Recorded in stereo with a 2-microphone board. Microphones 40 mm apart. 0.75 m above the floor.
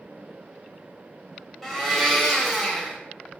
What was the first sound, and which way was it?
A blender, 5° left (ahead or behind).